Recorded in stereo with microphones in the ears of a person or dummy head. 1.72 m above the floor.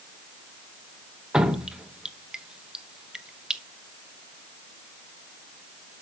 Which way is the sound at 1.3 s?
5° right (ahead or behind).